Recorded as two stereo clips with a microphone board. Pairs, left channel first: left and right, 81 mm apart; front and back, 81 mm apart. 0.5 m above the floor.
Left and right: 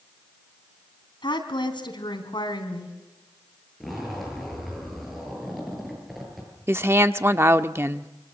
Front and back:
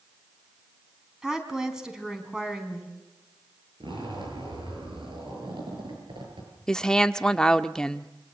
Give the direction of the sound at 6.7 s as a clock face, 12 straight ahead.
2 o'clock.